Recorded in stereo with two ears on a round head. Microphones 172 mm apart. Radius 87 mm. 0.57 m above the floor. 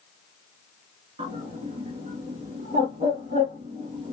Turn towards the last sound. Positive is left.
turn(degrees=-30)  # may be behind; listen again after turning